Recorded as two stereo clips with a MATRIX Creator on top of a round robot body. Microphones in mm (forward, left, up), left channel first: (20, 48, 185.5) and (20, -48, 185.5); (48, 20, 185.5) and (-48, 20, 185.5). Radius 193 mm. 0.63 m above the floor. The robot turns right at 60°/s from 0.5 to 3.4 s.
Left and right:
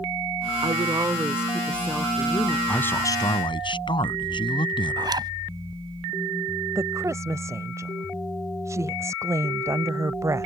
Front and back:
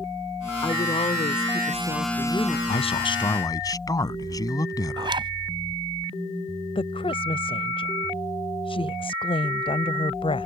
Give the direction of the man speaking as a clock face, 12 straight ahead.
12 o'clock.